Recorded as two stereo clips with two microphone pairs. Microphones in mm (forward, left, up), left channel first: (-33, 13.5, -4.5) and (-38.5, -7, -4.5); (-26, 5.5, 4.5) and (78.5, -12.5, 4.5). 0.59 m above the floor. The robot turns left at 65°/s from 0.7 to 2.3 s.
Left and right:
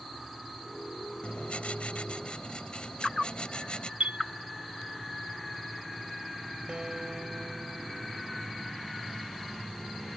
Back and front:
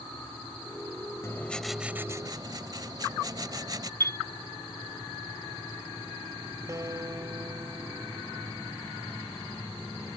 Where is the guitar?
65° right.